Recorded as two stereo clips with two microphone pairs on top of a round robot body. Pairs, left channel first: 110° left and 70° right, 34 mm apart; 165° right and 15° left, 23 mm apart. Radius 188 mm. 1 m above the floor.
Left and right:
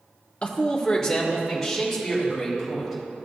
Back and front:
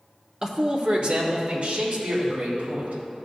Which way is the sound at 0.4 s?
65° left.